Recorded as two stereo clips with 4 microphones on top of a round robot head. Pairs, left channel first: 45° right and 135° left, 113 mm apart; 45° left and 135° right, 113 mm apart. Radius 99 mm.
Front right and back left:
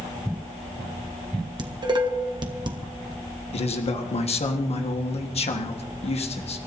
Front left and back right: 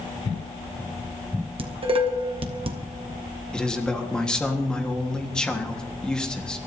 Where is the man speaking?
35° right, 1.6 m.